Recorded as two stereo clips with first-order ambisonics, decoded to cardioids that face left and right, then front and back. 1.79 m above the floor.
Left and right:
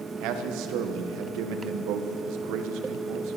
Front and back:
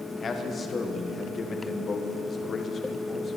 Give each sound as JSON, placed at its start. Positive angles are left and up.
{"t": 0.2, "sound": "a man speaking", "azimuth_deg": -65, "distance_m": 1.4}